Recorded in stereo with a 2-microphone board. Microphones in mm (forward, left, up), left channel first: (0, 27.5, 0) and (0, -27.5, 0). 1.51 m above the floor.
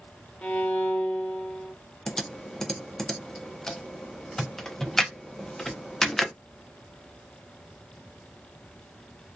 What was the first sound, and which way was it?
A violin, 30° left (ahead or behind).